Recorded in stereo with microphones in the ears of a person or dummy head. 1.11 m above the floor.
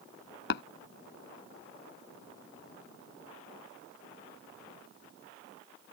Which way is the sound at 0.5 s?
65° left (ahead or behind).